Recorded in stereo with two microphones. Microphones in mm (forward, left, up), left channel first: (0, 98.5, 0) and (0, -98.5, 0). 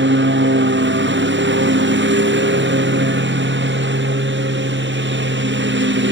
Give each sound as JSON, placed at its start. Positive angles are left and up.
{"t": 0.0, "sound": "a lawn mower", "side_deg": -80}